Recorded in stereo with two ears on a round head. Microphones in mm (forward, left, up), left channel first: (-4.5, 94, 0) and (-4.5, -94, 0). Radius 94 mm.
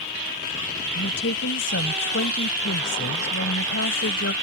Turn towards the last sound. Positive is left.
turn(degrees=55)  # may be behind; listen again after turning